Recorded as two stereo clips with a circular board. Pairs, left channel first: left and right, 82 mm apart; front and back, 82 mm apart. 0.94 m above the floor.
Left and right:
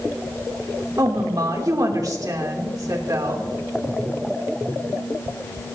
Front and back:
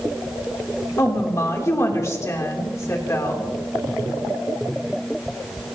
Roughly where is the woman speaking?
Ahead right.